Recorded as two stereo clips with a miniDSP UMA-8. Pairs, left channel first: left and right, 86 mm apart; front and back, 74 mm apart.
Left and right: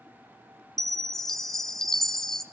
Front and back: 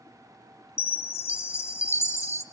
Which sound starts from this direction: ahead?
A chime, at 0.8 s.